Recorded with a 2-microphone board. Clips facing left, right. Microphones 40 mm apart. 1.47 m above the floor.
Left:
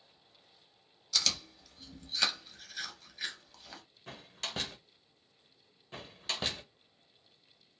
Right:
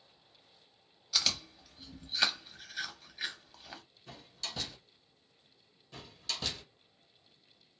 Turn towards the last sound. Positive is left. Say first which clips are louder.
# left 2 dB
turn(degrees=35)  # may be behind; listen again after turning